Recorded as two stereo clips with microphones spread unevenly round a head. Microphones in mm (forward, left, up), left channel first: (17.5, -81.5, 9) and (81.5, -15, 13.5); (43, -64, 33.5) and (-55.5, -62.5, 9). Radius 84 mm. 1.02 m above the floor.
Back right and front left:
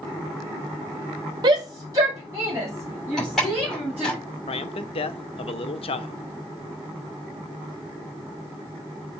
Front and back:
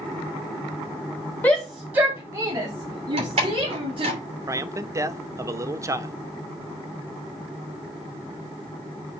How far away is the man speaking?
About 0.9 m.